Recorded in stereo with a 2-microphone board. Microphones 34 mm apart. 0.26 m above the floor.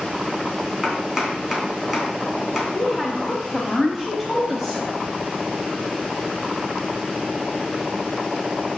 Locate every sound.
0.8 s chopping: 10° right (ahead or behind), 3 m
2.7 s a woman speaking: 10° right (ahead or behind), 1.3 m